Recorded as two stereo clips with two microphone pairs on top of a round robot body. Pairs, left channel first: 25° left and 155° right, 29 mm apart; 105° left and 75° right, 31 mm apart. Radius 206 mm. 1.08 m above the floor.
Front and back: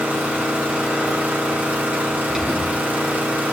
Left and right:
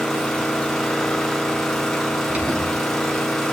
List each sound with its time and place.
0.0 s an engine running: straight behind, 1.5 m
2.3 s an alarm: 85° right, 3.5 m